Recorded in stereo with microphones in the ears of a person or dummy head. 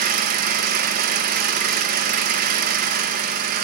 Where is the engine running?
40° right (ahead or behind), 0.9 m.